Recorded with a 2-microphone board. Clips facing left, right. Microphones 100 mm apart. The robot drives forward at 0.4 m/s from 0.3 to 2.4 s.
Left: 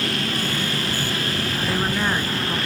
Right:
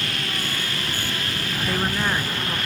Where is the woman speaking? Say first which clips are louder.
Even; centre (ahead or behind), 1.1 m.